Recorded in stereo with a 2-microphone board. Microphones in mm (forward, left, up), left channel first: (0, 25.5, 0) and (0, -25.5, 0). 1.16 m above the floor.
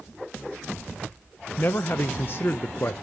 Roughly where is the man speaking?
Left.